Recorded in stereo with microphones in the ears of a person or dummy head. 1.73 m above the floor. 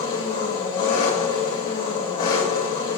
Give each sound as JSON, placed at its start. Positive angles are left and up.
{"t": 0.0, "sound": "an engine running", "side_deg": 50, "distance_m": 2.0}